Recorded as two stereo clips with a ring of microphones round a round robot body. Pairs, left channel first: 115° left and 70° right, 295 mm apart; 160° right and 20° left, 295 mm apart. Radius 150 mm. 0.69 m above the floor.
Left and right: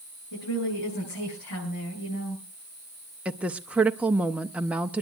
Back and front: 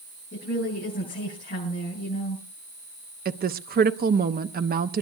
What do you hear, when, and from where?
0.3 s a woman speaking: 140° left, 9 m
3.2 s a woman speaking: 15° left, 0.7 m